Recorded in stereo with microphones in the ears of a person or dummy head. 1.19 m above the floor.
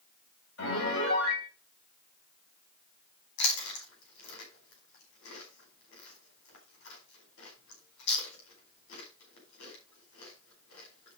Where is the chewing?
75° left (ahead or behind), 4.5 m.